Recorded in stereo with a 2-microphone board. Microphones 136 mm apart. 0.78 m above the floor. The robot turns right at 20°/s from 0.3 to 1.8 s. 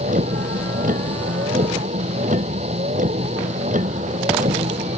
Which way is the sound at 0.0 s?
100° right.